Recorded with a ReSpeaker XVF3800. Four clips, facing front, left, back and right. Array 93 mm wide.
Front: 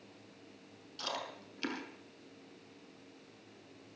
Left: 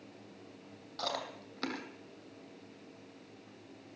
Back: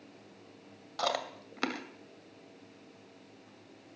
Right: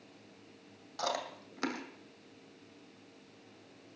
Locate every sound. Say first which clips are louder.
1.0 s chewing: right 2 dB, back 8 dB; 170° right, 2 m